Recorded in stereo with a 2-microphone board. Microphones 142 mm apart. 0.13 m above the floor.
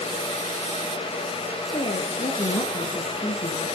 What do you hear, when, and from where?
1.7 s a woman speaking: 40° left (ahead or behind), 3.5 m